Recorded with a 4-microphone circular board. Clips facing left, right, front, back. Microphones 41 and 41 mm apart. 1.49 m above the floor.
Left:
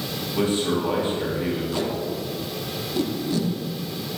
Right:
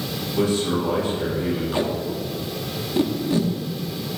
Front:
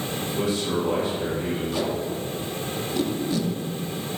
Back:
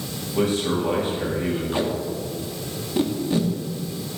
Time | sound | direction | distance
0.3 | a man speaking | 145° left | 2.5 m
1.7 | tape being pulled | 140° right | 0.7 m